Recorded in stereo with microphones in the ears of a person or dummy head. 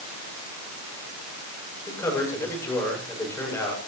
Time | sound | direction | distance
1.9 | a man speaking | 15° left (ahead or behind) | 9.5 m